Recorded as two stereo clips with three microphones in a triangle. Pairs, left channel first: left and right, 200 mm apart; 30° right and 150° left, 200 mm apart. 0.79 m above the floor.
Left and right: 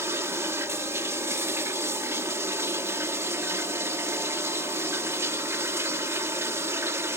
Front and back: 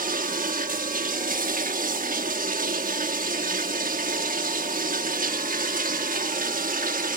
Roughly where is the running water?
Behind.